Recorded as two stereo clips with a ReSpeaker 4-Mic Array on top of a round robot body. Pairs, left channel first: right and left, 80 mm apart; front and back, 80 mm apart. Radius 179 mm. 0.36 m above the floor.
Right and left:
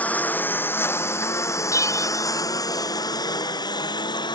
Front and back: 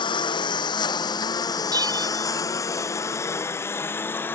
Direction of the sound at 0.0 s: 20° right.